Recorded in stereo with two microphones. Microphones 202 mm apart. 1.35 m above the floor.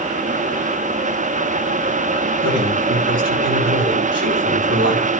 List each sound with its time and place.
2.4 s a man speaking: 75° right (ahead or behind), 9 m; by 5.1 s 60° right (ahead or behind), 9 m